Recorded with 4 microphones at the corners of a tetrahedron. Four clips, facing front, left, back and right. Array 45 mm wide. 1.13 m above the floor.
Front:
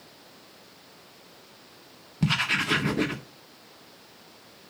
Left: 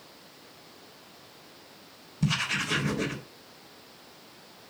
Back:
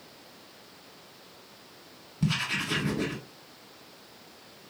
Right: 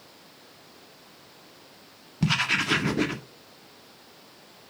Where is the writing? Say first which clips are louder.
Right 4 dB, front 4 dB; 55° right, 1.6 m.